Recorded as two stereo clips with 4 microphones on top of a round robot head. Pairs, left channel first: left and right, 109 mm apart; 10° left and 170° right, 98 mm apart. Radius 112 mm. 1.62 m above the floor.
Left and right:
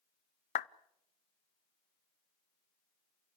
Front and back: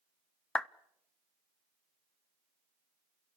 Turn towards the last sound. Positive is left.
turn(degrees=90)